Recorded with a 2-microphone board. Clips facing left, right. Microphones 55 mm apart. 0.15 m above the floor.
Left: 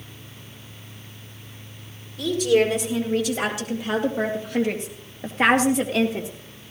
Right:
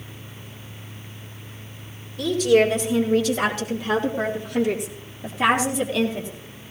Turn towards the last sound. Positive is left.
turn(degrees=65)  # may be behind; listen again after turning